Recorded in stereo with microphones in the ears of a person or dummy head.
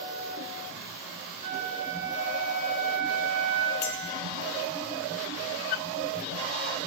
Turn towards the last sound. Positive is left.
turn(degrees=45)  # may be behind; listen again after turning